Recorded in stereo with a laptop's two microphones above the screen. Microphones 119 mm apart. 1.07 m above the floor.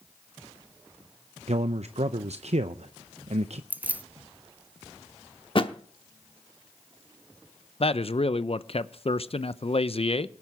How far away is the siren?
I don't hear a siren.